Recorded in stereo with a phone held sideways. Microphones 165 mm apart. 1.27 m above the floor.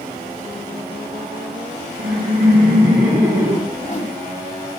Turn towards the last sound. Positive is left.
turn(degrees=45)  # may be behind; listen again after turning